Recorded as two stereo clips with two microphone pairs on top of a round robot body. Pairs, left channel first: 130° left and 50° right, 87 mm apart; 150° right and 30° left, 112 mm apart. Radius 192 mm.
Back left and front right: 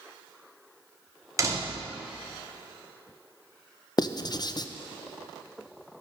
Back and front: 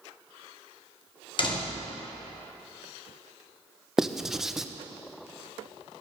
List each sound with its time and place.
1.4 s a door slam: 105° right, 1.8 m
4.0 s writing: 115° left, 0.7 m